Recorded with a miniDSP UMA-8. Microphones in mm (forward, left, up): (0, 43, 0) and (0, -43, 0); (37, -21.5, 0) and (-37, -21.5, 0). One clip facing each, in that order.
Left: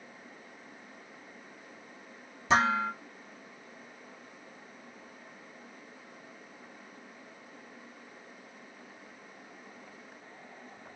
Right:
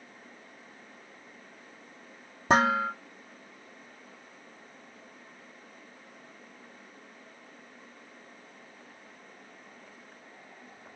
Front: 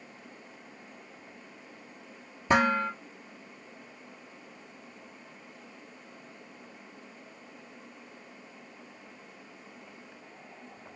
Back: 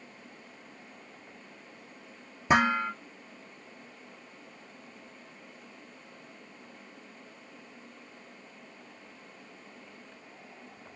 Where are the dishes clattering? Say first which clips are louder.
Right 2 dB, even; 110° right, 1.4 m.